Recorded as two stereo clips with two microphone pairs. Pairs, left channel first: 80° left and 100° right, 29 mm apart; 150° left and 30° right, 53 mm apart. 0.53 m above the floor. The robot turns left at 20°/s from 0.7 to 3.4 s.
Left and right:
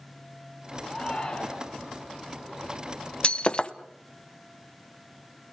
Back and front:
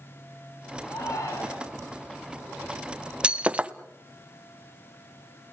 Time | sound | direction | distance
0.9 | a shout | 150° left | 5.5 m
3.2 | breaking glass | 35° left | 0.7 m